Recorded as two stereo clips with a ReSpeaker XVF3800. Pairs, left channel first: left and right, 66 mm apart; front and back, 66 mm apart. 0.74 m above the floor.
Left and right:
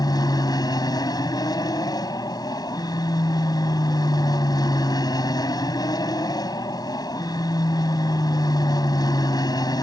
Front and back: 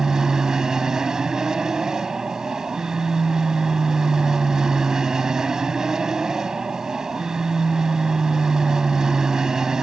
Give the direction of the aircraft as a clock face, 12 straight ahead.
9 o'clock.